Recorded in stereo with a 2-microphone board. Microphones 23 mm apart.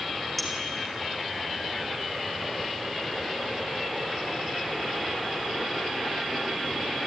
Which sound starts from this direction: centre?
A clink, at 0.4 s.